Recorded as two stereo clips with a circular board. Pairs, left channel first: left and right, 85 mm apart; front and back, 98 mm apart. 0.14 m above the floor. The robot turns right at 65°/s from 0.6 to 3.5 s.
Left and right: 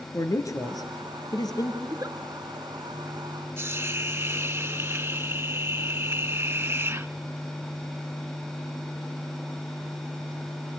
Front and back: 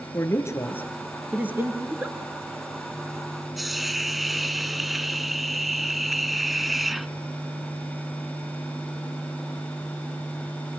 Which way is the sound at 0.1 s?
55° left.